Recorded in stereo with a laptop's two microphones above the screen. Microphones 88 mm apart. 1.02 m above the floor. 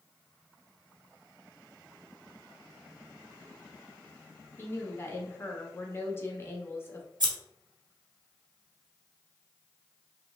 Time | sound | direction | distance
4.6 | a woman speaking | 30° left (ahead or behind) | 1.1 m
7.2 | scissors | 55° right (ahead or behind) | 1.3 m